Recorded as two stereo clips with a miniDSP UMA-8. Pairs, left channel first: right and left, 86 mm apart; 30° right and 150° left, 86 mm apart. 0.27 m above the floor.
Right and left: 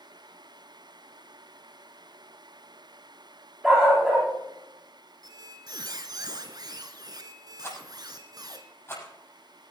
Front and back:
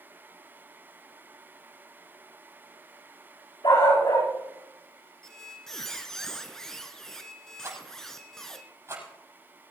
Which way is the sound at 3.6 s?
Straight ahead.